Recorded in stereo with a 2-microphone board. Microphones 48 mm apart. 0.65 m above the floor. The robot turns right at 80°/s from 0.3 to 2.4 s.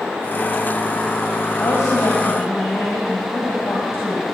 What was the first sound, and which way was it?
A woman speaking, 70° left.